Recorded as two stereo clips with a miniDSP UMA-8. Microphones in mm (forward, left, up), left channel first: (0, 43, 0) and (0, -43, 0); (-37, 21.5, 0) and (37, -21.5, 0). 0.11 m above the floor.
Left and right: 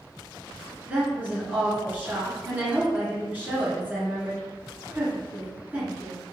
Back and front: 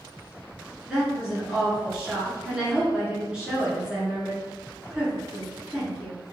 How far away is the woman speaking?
About 1.7 m.